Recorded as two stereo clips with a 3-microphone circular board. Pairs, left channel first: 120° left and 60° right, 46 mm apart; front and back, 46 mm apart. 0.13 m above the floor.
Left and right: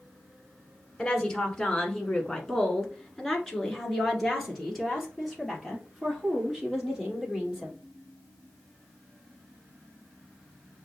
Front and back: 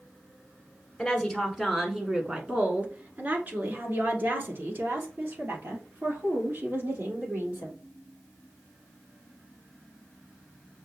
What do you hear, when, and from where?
1.0 s a woman speaking: 65° left, 1.5 m; by 7.8 s 150° right, 4.5 m